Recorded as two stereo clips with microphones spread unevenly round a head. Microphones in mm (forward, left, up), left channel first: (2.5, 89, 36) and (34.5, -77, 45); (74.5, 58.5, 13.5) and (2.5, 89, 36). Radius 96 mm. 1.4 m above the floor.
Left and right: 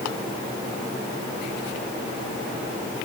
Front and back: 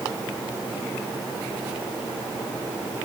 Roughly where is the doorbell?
No doorbell in this recording.